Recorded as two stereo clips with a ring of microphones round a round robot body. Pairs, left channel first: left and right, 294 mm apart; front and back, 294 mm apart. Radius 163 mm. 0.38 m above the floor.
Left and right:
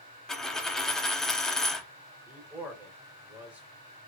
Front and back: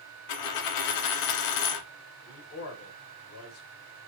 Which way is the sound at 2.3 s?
5° right.